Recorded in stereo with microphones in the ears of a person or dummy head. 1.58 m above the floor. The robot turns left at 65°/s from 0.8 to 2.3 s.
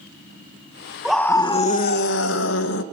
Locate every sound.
1.1 s a scream: straight behind, 1.5 m; by 2.8 s 100° left, 1.5 m